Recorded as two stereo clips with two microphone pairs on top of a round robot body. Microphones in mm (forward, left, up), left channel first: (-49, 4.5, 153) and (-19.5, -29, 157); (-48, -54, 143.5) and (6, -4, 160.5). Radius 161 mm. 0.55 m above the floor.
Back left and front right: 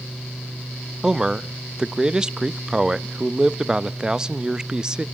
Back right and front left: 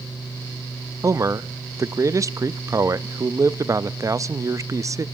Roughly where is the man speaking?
Ahead.